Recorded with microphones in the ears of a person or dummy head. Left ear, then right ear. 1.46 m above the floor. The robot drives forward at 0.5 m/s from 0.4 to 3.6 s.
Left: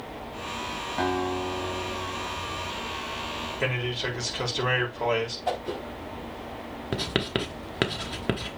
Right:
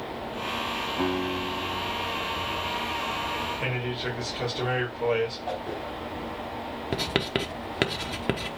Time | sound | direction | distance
1.0 | a guitar | 70° left (ahead or behind) | 2.5 m
3.6 | a man speaking | 70° left (ahead or behind) | 3.5 m
5.5 | a whoosh | 70° left (ahead or behind) | 4 m
6.9 | writing | 5° right (ahead or behind) | 1.1 m